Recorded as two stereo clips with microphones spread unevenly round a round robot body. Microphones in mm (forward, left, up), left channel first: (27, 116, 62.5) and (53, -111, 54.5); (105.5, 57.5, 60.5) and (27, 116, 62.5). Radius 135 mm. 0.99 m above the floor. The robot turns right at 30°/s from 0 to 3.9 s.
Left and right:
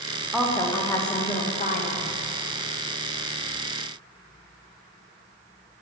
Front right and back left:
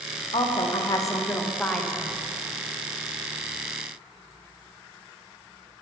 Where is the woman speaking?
Straight ahead, 0.9 m; by 2.1 s 55° left, 0.9 m.